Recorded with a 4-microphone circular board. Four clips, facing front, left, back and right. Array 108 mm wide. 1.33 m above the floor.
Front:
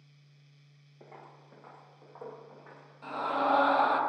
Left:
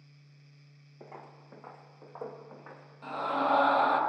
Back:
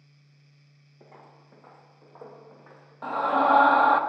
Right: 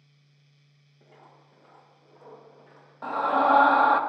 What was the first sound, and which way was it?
Footsteps, 85° left.